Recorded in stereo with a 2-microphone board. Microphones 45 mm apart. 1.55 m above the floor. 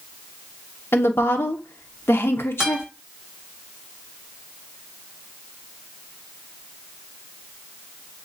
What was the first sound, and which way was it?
A woman speaking, 60° left (ahead or behind).